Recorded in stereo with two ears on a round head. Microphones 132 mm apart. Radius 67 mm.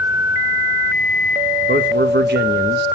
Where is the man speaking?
70° right (ahead or behind), 1.7 m.